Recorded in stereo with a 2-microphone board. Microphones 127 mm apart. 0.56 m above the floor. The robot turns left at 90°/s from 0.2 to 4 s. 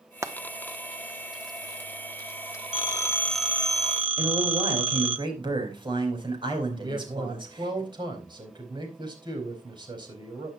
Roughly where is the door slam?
I don't hear a door slam.